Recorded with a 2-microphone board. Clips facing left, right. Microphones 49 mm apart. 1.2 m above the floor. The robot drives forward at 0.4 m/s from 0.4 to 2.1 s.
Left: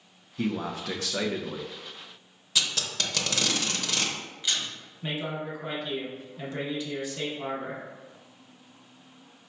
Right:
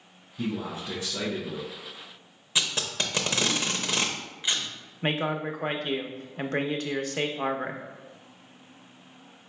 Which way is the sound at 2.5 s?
25° right (ahead or behind).